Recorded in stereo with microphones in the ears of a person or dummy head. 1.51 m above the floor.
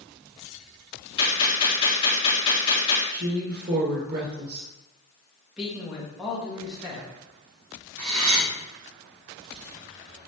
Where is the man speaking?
Centre (ahead or behind), 2.0 m.